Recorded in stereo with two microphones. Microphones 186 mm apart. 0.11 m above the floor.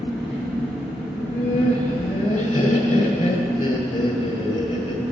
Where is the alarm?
I don't hear an alarm.